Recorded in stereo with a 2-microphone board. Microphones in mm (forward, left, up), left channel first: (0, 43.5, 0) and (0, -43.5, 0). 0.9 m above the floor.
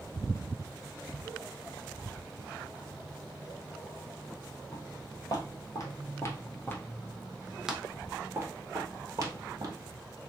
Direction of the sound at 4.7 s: 55° left (ahead or behind).